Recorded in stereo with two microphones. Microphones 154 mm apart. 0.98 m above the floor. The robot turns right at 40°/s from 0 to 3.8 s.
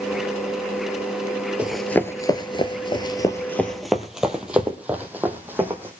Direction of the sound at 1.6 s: 5° right (ahead or behind).